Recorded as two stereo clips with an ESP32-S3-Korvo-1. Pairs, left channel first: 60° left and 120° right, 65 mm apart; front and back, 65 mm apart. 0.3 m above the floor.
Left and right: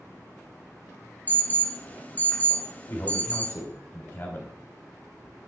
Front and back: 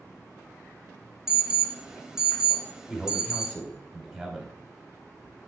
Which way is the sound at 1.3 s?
105° left.